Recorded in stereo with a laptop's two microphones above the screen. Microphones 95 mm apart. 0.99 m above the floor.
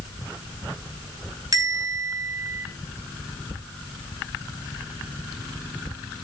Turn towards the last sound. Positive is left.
turn(degrees=-40)  # may be behind; listen again after turning